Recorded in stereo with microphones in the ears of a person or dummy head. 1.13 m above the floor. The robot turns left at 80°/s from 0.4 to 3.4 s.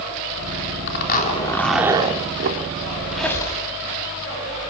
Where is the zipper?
70° left, 4 m; by 2.6 s 70° right, 4 m.